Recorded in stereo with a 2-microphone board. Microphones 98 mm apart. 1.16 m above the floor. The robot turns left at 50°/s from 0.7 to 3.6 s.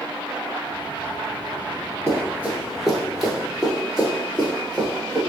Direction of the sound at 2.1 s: 30° right (ahead or behind).